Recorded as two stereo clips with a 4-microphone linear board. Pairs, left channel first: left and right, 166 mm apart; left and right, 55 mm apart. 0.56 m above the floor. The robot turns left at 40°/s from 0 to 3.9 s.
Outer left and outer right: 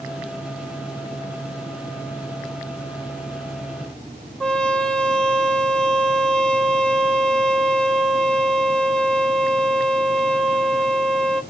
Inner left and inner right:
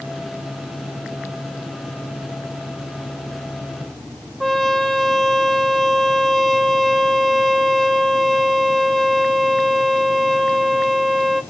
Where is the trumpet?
5° left (ahead or behind), 1.6 m.